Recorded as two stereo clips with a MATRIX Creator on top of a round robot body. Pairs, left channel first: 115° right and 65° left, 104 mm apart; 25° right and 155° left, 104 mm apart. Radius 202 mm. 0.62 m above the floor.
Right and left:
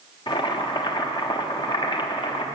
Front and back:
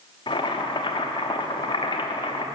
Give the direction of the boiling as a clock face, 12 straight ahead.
2 o'clock.